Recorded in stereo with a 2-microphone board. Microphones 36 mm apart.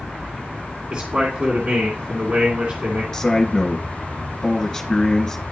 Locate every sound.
0.9 s a man speaking: 35° right (ahead or behind), 2 m
3.1 s a man speaking: 10° left (ahead or behind), 2 m